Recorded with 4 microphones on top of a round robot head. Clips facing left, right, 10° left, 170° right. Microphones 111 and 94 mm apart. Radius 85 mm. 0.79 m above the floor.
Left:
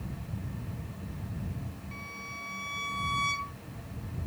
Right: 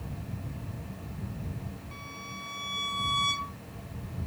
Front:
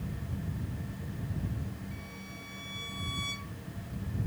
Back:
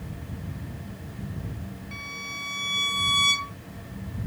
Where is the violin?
170° right.